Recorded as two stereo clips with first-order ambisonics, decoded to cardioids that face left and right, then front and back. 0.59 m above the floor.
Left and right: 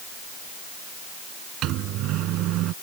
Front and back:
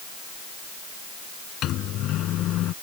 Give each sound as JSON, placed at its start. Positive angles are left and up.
{"t": 1.6, "sound": "a microwave", "azimuth_deg": -50}